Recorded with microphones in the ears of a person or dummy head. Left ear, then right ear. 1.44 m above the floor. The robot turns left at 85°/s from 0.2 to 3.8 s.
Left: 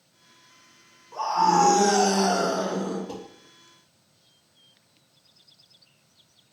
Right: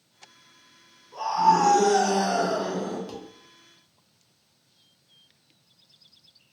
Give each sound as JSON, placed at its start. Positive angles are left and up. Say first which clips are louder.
{"t": 1.1, "sound": "a scream", "louder": "even", "azimuth_deg": 145, "distance_m": 1.2}
{"t": 3.1, "sound": "dishes clattering", "louder": "left 2 dB", "side_deg": -60, "distance_m": 1.2}